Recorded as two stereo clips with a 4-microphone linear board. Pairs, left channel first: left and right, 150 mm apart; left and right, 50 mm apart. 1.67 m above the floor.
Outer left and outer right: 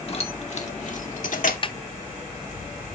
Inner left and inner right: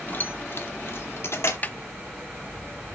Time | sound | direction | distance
0.1 | keys jangling | 40° left (ahead or behind) | 1.6 m
1.6 | a snare drum | 35° left (ahead or behind) | 0.6 m